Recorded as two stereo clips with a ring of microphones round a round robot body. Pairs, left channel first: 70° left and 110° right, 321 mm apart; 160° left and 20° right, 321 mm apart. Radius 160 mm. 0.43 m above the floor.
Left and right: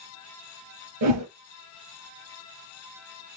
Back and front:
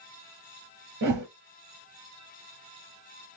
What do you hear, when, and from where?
1.0 s a whoosh: 80° right, 3 m